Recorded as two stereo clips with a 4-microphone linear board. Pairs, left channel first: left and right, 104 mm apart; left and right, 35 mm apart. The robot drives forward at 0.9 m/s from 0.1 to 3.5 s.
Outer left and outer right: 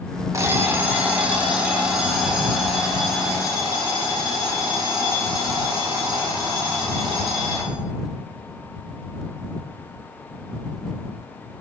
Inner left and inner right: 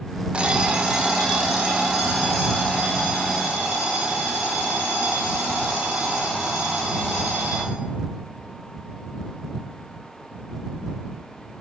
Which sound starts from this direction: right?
An alarm clock, at 0.3 s.